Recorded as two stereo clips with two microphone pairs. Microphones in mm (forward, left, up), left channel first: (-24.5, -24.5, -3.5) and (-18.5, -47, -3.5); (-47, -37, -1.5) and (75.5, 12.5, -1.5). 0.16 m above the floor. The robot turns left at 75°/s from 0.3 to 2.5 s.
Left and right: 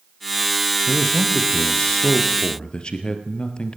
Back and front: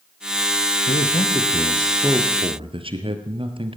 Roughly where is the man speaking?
Behind.